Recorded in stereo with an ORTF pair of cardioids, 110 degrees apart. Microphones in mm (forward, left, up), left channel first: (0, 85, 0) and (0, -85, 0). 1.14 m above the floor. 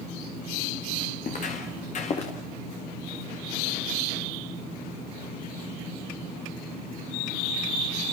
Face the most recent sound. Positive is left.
turn(degrees=40)